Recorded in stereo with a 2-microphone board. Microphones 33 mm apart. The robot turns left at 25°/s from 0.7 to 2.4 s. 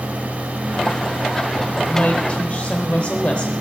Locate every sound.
1.8 s a woman speaking: 35° left (ahead or behind), 1.0 m